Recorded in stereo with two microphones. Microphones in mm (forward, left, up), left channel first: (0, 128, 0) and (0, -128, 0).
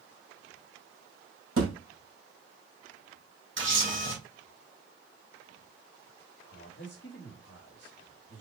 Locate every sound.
1.6 s a thud: 55° right (ahead or behind), 2 m
3.6 s a camera shutter: 50° right (ahead or behind), 2.5 m
6.5 s a man speaking: 45° left (ahead or behind), 1.3 m